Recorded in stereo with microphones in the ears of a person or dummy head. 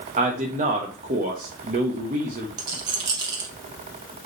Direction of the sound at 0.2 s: 35° right (ahead or behind).